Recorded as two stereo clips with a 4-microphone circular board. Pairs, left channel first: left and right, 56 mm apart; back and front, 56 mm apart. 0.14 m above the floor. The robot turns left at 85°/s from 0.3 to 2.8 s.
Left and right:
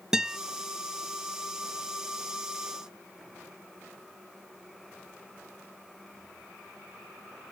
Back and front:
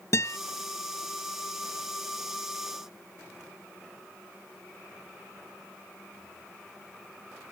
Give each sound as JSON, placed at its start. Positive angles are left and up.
{"t": 0.1, "sound": "a guitar", "azimuth_deg": -170}